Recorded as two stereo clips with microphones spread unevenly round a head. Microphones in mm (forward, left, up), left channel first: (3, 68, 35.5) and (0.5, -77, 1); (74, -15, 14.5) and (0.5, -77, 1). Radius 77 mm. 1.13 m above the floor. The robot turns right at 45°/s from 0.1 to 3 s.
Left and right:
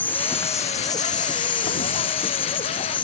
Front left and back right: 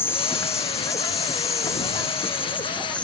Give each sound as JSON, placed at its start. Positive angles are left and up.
{"t": 0.0, "sound": "an insect", "azimuth_deg": -10}